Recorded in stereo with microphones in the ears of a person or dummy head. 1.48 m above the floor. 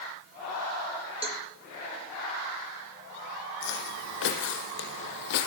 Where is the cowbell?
30° right (ahead or behind), 2 m.